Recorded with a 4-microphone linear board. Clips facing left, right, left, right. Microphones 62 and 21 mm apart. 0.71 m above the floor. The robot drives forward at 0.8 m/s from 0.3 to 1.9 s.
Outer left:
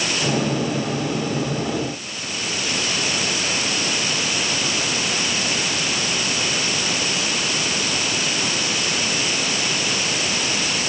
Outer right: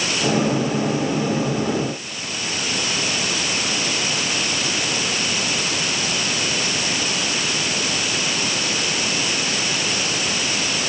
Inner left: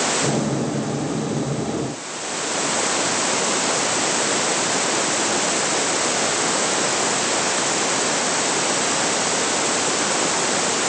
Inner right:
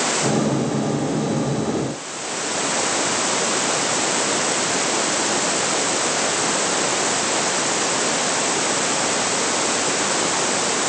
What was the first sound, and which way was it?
Only background noise.